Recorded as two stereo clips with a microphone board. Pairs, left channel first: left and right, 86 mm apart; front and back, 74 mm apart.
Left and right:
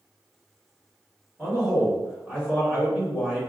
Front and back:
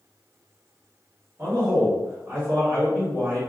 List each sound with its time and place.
1.4 s a man speaking: 160° right, 1.6 m